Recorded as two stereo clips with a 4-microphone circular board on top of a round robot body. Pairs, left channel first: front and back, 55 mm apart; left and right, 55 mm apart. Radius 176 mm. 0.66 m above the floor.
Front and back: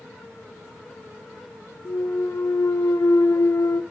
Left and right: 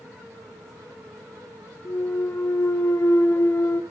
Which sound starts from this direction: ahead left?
A clunk, at 1.9 s.